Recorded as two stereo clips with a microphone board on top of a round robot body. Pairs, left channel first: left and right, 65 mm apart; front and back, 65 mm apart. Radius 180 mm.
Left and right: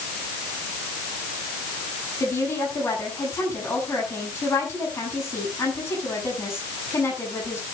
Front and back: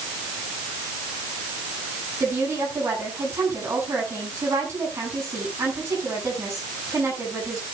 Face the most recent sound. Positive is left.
turn(degrees=135)